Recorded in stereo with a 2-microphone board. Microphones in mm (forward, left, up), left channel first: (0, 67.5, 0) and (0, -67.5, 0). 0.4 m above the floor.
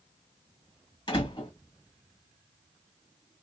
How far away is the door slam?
About 1.9 m.